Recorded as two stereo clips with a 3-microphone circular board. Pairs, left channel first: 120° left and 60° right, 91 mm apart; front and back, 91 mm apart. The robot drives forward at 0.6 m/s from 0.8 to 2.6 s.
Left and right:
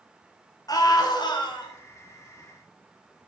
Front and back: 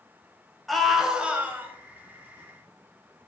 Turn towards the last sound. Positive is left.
turn(degrees=135)